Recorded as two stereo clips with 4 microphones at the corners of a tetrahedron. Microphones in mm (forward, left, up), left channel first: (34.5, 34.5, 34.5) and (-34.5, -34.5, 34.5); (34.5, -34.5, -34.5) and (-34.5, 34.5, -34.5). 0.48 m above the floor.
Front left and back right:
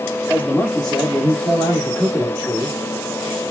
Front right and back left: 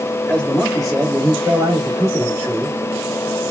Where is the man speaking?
15° left, 1.4 m; by 2.8 s 170° right, 1.8 m.